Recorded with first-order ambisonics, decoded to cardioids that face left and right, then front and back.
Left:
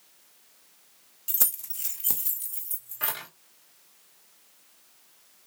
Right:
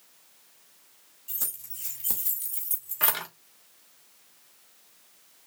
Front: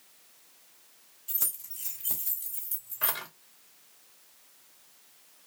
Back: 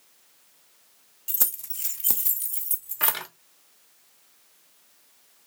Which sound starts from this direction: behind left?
Keys jangling, at 1.3 s.